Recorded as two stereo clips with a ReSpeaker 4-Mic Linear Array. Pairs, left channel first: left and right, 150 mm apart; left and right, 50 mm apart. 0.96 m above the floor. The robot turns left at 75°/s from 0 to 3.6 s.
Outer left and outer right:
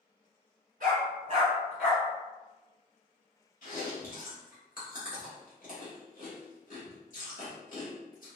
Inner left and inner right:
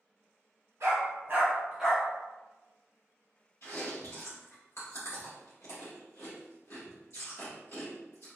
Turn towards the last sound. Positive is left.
turn(degrees=65)  # may be behind; listen again after turning